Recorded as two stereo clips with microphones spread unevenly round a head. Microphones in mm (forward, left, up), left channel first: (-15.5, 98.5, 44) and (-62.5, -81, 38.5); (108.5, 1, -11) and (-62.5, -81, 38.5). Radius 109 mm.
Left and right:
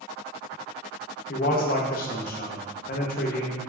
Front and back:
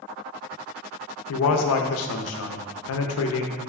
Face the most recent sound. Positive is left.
turn(degrees=25)